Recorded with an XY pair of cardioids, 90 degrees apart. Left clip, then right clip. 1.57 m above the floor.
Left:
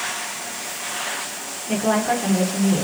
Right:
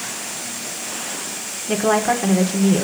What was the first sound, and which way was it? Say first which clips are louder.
A woman speaking: right 3 dB; 45° right.